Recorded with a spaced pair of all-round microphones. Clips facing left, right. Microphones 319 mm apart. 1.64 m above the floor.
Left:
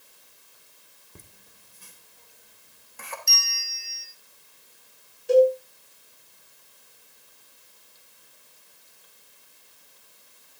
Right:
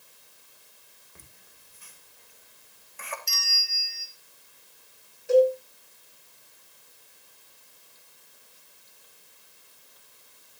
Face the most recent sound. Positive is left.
turn(degrees=40)  # may be behind; listen again after turning